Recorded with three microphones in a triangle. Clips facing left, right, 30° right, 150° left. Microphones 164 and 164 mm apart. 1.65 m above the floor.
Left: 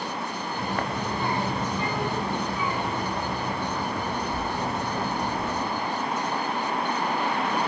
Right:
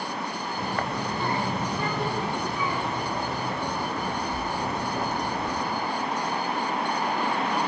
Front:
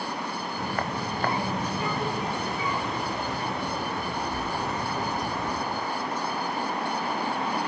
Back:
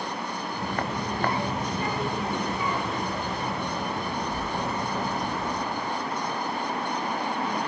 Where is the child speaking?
155° left, 3 m; by 5.6 s 170° left, 6.5 m.